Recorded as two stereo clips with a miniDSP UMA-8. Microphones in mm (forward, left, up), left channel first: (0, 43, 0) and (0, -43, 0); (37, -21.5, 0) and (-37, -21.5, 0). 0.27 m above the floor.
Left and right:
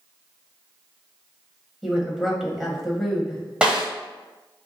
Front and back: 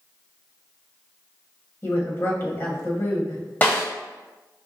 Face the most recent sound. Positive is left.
turn(degrees=-25)